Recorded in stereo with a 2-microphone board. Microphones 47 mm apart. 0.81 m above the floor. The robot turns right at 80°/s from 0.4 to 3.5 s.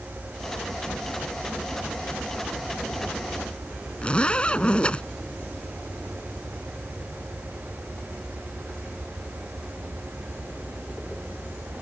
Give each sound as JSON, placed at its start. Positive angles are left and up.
{"t": 4.0, "sound": "a zipper", "side_deg": 25}